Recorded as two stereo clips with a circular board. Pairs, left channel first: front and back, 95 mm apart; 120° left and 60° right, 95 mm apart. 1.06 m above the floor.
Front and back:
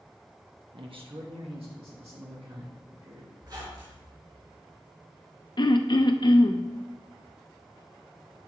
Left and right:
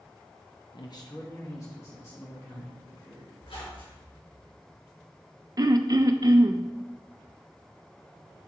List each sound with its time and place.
0.7 s a man speaking: 155° left, 1.0 m; by 3.3 s 170° right, 3 m
3.4 s a squeak: 135° left, 4.5 m
5.6 s throat clearing: 25° right, 0.6 m